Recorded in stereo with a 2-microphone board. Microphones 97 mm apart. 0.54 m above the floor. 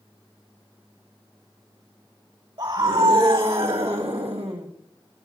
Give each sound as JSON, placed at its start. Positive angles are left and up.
{"t": 2.6, "sound": "a scream", "side_deg": -55, "distance_m": 3.5}